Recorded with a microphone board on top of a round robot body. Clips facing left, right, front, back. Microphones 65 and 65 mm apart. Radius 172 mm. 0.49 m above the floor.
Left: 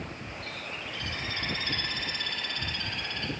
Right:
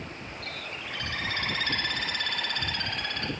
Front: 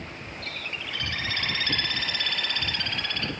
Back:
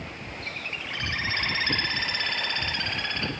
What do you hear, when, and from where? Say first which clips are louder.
0.4 s a bird: right 1 dB, even; 115° right, 0.8 m